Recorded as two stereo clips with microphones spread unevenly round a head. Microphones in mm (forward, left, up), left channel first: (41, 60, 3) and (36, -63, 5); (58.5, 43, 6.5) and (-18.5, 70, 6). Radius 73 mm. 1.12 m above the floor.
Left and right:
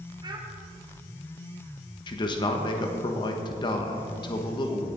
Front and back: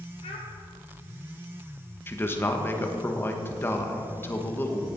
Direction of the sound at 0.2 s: 40° right.